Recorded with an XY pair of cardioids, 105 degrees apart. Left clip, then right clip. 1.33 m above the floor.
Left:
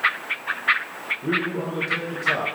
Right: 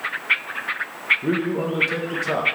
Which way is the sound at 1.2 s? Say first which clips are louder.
Right 1 dB; 30° right.